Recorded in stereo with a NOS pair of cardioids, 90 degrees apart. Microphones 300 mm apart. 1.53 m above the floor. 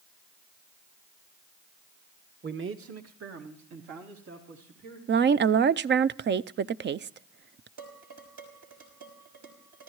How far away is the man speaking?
About 1.6 m.